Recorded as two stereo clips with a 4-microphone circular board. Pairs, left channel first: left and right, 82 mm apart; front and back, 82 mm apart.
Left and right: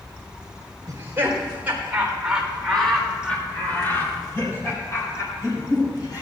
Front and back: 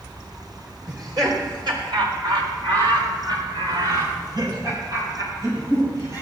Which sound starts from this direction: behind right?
Laughter, at 0.9 s.